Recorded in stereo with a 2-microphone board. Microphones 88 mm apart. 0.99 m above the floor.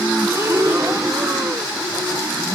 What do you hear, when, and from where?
0.3 s breathing: 35° right (ahead or behind)